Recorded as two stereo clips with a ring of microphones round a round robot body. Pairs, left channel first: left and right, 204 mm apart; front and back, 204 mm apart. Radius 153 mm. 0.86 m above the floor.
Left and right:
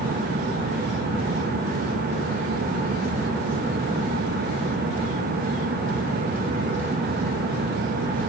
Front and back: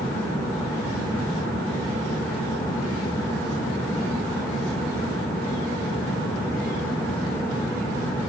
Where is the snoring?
I don't hear snoring.